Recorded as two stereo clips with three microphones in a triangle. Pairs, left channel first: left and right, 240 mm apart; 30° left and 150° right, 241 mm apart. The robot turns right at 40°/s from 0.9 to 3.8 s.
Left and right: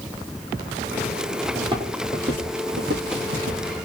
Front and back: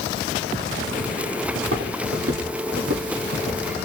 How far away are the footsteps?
About 1.5 m.